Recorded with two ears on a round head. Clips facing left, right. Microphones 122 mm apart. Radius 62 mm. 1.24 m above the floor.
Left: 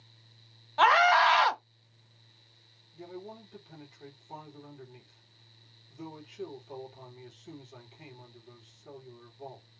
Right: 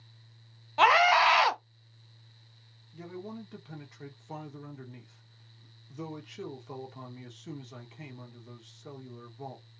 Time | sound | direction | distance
0.8 | a scream | 15° right (ahead or behind) | 0.9 m
2.9 | a man speaking | 80° right | 1.5 m